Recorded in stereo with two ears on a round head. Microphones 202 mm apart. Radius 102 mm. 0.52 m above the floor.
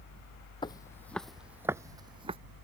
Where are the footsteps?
20° left (ahead or behind); by 2.4 s 25° right (ahead or behind).